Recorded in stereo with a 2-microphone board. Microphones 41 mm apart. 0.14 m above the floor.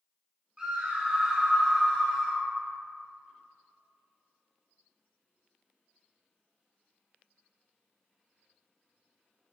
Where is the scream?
25° right (ahead or behind), 1.2 m; by 2.4 s 20° left (ahead or behind), 1.2 m.